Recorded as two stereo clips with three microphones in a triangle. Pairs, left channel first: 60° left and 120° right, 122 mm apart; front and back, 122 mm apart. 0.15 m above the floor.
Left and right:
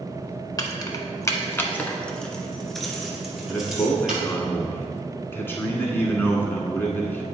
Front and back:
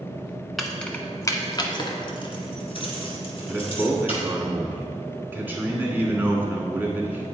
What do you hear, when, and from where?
0.6 s keys jangling: 90° left, 0.8 m; by 4.2 s 35° right, 2 m
3.5 s a man speaking: 120° left, 1.2 m